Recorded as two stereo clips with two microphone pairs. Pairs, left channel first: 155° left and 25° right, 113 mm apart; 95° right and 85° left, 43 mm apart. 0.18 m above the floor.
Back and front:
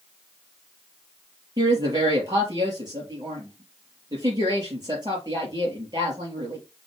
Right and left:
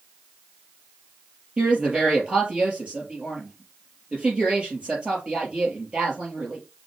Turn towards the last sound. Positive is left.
turn(degrees=25)